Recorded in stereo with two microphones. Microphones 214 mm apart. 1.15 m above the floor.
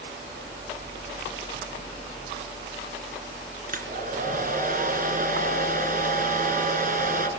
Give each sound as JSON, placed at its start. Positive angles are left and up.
{"t": 3.7, "sound": "a hair dryer", "side_deg": -40, "distance_m": 3.0}